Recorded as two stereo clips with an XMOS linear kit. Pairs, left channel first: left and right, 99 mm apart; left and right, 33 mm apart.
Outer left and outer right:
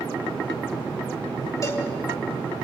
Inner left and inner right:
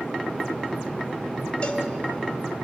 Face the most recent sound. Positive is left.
turn(degrees=35)  # may be behind; listen again after turning